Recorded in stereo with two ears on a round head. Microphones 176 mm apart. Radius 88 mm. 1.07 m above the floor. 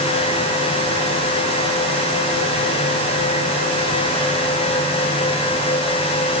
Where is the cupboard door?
I don't hear a cupboard door.